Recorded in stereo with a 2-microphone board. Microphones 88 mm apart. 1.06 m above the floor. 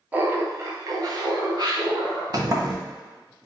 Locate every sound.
0.1 s laughter: 20° right (ahead or behind), 0.6 m; by 2.2 s 55° right (ahead or behind), 1.5 m
2.3 s a sliding door: 45° right (ahead or behind), 0.6 m